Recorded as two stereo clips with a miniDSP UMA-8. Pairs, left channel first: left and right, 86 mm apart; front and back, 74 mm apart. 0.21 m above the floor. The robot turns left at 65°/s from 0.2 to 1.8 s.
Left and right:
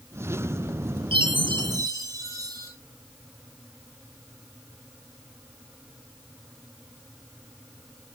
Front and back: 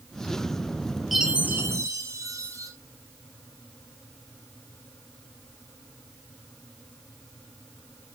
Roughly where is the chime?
Right.